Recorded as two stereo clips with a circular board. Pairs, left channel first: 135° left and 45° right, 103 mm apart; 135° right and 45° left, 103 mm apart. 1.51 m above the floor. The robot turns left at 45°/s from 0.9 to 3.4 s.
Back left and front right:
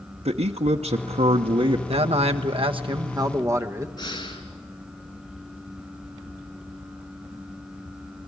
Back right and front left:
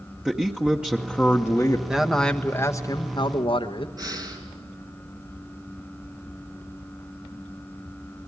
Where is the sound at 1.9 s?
35° right, 1.3 m; by 3.9 s 105° right, 1.3 m.